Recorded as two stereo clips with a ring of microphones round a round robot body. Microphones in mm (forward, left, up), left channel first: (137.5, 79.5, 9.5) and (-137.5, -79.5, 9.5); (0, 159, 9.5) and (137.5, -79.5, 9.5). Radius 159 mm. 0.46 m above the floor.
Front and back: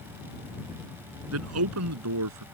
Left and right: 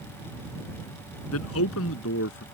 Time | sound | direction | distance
1.3 | a man speaking | 165° left | ?